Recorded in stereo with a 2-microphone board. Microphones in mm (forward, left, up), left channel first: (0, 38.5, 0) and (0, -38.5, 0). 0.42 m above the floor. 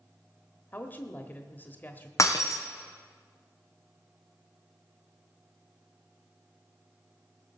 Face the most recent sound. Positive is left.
turn(degrees=45)  # may be behind; listen again after turning